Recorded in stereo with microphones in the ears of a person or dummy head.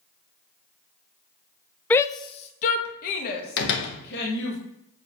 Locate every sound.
1.9 s a shout: 10° left (ahead or behind), 0.5 m; by 4.6 s 60° left (ahead or behind), 2.5 m
3.6 s a door slam: 65° left (ahead or behind), 1.6 m